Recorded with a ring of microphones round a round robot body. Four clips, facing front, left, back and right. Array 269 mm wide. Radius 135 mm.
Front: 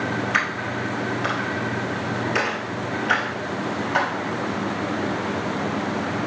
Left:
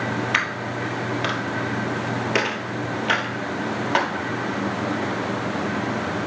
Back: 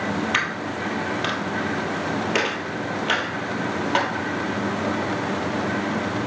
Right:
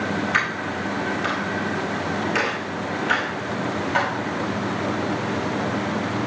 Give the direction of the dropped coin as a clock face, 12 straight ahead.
8 o'clock.